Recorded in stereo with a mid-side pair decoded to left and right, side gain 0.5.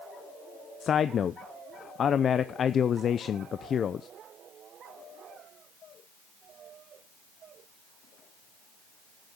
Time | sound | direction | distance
0.8 | a man speaking | 50° left | 0.5 m